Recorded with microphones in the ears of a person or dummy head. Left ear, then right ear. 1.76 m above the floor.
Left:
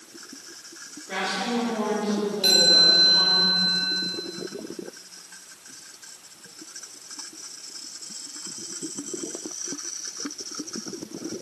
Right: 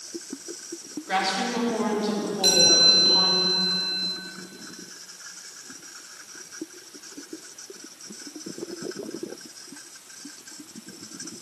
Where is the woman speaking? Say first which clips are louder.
Right 2 dB; 35° right (ahead or behind), 3 m.